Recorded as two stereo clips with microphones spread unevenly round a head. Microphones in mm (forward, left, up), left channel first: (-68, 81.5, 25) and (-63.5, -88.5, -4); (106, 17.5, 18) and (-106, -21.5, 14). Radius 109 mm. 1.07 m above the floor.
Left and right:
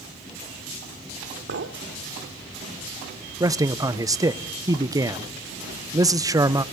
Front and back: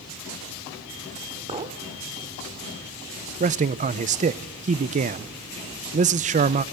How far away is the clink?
About 1.5 m.